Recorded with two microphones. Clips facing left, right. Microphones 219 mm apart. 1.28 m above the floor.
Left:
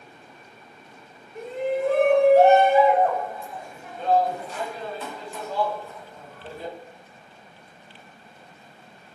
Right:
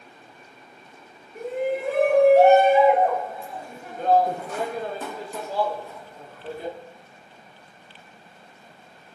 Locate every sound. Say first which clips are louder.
1.4 s a shout: even; 10° right (ahead or behind), 1.8 m; by 6.8 s 20° right (ahead or behind), 1.4 m